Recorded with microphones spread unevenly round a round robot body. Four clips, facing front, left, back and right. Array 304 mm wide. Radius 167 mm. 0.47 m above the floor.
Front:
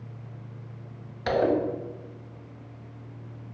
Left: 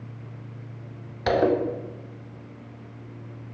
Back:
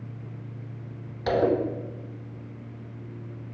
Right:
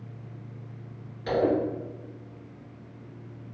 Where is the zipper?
75° left, 0.5 m.